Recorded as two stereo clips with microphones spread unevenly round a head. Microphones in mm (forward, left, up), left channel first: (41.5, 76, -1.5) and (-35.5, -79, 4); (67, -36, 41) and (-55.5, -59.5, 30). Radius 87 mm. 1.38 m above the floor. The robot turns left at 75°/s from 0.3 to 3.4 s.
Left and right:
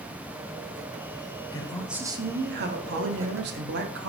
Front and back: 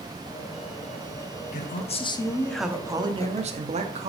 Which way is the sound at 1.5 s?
Straight ahead.